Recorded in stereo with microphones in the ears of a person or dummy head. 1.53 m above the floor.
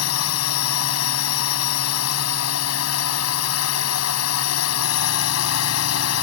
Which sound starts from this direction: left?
A drone, at 0.0 s.